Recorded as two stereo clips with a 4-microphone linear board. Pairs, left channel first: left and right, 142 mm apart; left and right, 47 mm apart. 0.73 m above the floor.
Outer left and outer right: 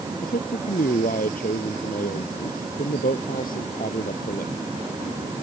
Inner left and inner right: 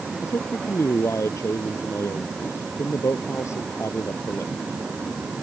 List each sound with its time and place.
0.2 s a man speaking: 85° left; by 4.5 s 80° left